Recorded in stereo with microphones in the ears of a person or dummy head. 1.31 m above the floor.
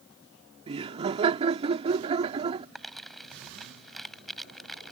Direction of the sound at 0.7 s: 25° right (ahead or behind).